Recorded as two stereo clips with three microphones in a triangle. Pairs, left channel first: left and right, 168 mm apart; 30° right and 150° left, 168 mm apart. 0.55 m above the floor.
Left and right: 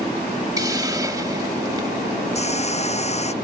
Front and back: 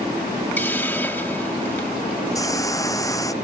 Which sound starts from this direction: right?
A hiss, at 0.6 s.